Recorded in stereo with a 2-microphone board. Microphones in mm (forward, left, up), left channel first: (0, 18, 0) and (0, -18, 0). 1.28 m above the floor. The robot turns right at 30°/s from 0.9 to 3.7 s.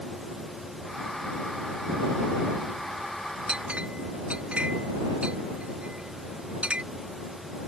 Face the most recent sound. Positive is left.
turn(degrees=-35)  # may be behind; listen again after turning